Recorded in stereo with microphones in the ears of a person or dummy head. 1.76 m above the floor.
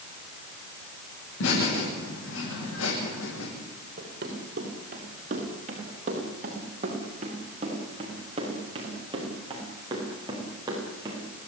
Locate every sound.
1.4 s laughter: 85° left, 9 m
4.0 s running footsteps: 50° right (ahead or behind), 8.5 m; by 11.3 s 15° right (ahead or behind), 11 m